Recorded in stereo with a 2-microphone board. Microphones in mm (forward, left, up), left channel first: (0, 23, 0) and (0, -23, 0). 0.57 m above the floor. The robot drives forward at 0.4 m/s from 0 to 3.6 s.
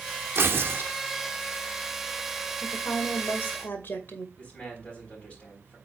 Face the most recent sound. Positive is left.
turn(degrees=30)  # may be behind; listen again after turning